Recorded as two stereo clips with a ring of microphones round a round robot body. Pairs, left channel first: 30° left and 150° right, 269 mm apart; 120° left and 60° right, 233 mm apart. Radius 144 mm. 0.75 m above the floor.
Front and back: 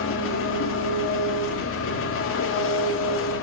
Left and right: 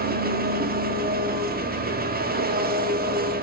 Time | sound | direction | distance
0.0 | an engine running | 10° right | 1.4 m